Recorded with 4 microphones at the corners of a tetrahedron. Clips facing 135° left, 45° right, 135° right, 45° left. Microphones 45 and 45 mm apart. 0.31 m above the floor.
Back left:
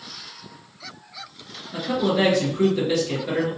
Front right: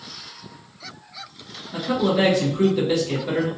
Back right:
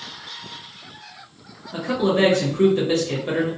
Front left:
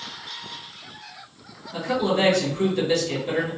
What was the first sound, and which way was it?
A man speaking, 125° right.